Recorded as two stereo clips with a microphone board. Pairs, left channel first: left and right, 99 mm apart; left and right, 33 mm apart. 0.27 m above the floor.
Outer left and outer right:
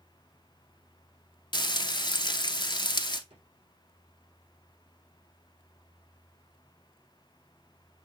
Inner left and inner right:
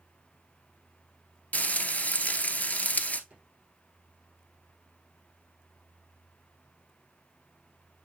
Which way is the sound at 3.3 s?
80° right.